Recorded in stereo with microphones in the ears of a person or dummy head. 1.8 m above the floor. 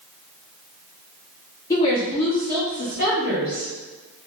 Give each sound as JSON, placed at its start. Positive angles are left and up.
{"t": 1.7, "sound": "a woman speaking", "side_deg": 20, "distance_m": 0.8}